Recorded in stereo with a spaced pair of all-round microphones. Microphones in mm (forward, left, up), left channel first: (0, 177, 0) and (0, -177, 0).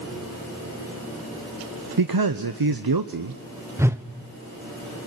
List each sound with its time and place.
2.0 s a man speaking: 80° right, 0.8 m
3.8 s a whoosh: 5° right (ahead or behind), 0.9 m